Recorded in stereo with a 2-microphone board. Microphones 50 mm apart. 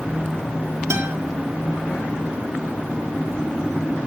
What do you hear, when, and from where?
0.9 s a guitar: 70° right (ahead or behind), 1.8 m